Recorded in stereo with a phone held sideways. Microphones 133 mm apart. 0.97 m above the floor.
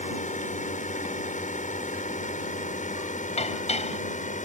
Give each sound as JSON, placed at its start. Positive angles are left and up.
{"t": 0.0, "sound": "a drone", "side_deg": 70}
{"t": 3.4, "sound": "dishes clattering", "side_deg": 55}